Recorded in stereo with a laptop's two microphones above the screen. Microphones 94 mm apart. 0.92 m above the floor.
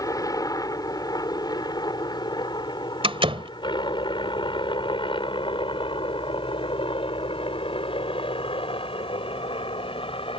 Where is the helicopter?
40° left (ahead or behind); by 10.4 s 75° left (ahead or behind).